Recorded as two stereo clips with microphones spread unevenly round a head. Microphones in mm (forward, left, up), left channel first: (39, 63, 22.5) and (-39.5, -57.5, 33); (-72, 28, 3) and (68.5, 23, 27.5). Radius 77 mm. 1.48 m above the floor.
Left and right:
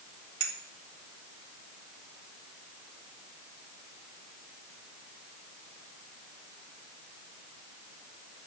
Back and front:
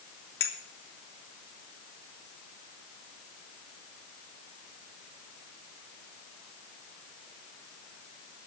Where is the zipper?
No zipper in this recording.